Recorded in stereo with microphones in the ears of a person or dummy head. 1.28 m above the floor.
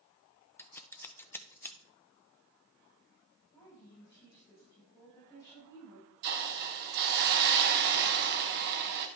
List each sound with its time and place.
0.6 s scissors: 15° left (ahead or behind), 0.5 m
3.5 s a woman speaking: 25° left (ahead or behind), 6 m
6.2 s a hiss: 55° right (ahead or behind), 0.9 m